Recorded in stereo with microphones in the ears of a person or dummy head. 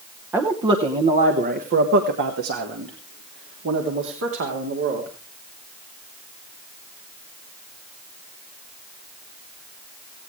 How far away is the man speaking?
About 0.9 m.